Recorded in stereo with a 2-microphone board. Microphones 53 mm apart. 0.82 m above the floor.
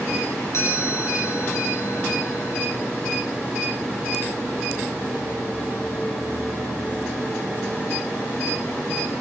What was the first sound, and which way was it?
A chime, 55° left (ahead or behind).